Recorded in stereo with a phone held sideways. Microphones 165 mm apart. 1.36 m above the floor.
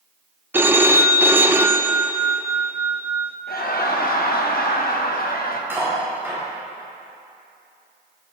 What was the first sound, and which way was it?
A phone ringing, 15° right (ahead or behind).